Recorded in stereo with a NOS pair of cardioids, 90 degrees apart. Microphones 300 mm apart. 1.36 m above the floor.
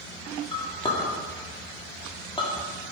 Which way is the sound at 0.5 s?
15° left.